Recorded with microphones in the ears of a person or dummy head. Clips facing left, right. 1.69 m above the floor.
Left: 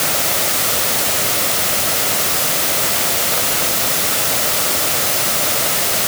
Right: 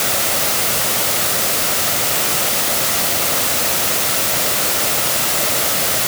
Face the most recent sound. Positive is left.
No sound to turn to.